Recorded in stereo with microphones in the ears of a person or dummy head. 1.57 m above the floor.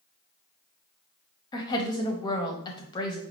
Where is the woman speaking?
25° left (ahead or behind), 0.8 m.